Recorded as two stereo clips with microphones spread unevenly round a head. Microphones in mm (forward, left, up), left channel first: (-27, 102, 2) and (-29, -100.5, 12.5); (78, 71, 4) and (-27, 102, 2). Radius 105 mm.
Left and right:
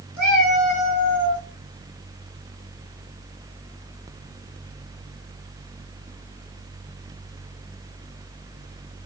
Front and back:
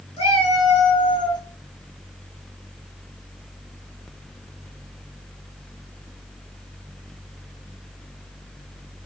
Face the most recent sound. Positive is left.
turn(degrees=25)